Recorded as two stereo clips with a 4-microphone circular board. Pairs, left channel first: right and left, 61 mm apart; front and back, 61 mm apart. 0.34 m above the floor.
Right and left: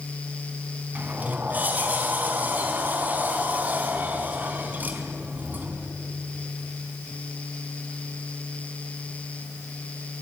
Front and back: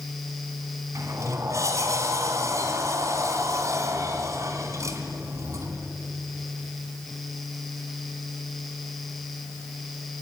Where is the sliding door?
150° left, 2.5 m.